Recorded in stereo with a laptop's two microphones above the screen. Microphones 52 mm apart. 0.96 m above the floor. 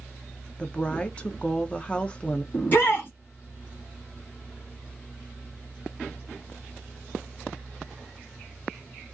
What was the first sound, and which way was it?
A woman speaking, 20° left (ahead or behind).